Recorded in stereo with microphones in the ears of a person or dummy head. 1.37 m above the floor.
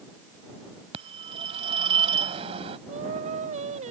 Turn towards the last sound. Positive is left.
turn(degrees=-45)  # may be behind; listen again after turning